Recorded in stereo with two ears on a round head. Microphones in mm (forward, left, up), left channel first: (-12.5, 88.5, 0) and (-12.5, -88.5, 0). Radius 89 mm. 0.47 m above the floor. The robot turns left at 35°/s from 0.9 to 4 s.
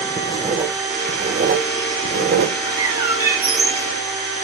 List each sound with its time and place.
0.2 s writing: 20° right (ahead or behind), 0.6 m; by 2.5 s 60° right (ahead or behind), 0.6 m
2.6 s a bird: 140° right, 0.8 m; by 3.9 s 175° left, 0.8 m